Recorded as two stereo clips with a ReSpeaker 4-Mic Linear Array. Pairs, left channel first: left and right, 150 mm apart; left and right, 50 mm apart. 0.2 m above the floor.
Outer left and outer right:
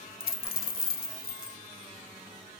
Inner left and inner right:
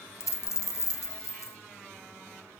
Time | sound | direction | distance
0.2 | a dropped coin | 70° left (ahead or behind) | 0.6 m